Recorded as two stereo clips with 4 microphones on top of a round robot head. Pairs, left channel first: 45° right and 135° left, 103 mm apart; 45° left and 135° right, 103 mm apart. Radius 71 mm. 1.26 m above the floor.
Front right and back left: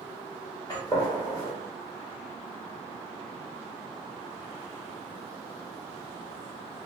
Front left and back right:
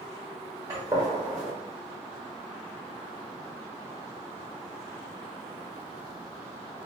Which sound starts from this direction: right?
A gunshot, at 0.7 s.